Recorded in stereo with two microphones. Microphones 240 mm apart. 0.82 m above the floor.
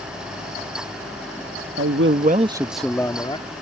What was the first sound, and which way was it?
A man speaking, 65° right (ahead or behind).